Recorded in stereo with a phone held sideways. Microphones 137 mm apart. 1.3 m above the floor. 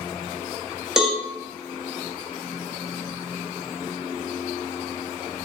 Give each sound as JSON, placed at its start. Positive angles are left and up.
{"t": 1.0, "sound": "a cowbell", "side_deg": -5, "distance_m": 1.1}